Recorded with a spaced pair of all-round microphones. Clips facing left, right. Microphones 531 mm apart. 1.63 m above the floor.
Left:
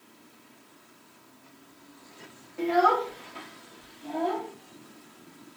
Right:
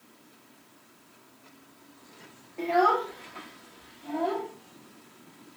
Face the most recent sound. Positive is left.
turn(degrees=55)  # may be behind; listen again after turning